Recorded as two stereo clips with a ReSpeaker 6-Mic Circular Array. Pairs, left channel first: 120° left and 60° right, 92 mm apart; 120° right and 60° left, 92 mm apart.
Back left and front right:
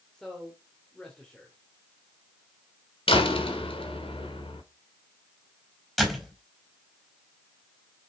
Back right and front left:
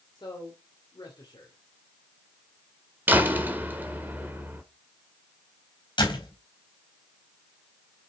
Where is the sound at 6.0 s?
150° right, 4 m.